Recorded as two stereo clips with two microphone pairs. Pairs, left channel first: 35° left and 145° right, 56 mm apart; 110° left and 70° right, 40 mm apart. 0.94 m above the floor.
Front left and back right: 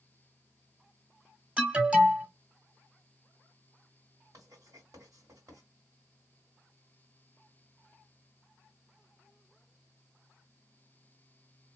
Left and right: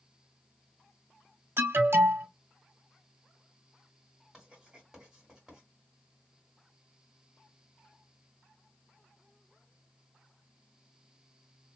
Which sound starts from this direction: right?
An alarm, at 1.6 s.